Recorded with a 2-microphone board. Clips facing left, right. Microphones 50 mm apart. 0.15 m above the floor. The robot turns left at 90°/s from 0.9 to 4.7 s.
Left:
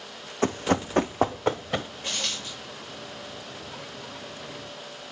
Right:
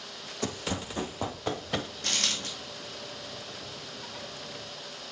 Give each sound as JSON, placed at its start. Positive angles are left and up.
{"t": 0.4, "sound": "running footsteps", "side_deg": 35, "distance_m": 0.5}
{"t": 2.0, "sound": "a dropped coin", "azimuth_deg": -70, "distance_m": 2.0}